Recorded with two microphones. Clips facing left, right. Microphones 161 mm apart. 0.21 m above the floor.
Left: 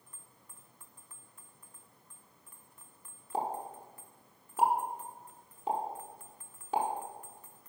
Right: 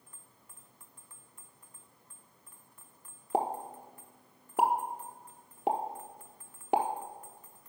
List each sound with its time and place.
3.3 s a pop: 75° right (ahead or behind), 0.8 m